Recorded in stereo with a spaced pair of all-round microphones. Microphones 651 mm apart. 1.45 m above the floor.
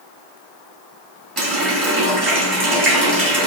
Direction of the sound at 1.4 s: 35° right (ahead or behind).